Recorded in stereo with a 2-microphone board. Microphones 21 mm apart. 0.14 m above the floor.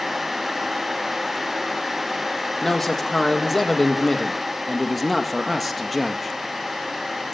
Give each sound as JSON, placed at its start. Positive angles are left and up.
{"t": 2.6, "sound": "a man speaking", "side_deg": 25, "distance_m": 4.5}